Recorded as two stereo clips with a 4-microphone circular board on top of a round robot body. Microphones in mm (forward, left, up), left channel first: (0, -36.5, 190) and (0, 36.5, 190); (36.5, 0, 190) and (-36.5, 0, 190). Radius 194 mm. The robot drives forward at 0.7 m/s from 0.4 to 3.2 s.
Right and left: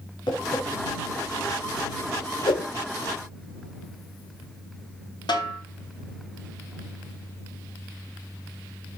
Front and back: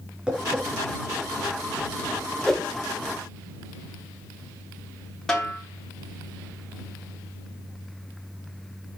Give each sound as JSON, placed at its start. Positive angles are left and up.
{"t": 0.3, "sound": "tapping", "azimuth_deg": -100, "distance_m": 5.5}
{"t": 2.5, "sound": "a whoosh", "azimuth_deg": -85, "distance_m": 1.2}
{"t": 5.3, "sound": "a snare drum", "azimuth_deg": -85, "distance_m": 4.0}